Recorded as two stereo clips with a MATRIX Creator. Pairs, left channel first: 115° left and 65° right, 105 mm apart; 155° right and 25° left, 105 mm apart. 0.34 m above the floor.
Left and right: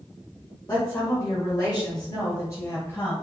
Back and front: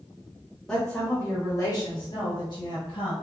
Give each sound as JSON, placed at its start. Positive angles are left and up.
{"t": 0.7, "sound": "a woman speaking", "azimuth_deg": 120, "distance_m": 1.1}